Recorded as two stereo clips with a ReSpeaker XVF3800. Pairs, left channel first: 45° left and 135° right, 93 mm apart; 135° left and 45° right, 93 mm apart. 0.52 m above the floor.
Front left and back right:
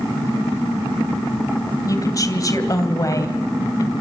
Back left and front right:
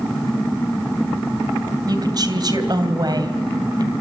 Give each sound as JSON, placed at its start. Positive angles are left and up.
{"t": 1.9, "sound": "a woman speaking", "azimuth_deg": -5, "distance_m": 3.0}